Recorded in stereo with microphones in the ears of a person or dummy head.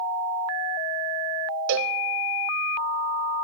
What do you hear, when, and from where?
1.7 s a cowbell: 65° right (ahead or behind), 0.6 m